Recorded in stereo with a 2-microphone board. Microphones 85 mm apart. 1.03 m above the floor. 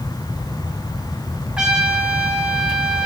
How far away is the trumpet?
About 1.6 m.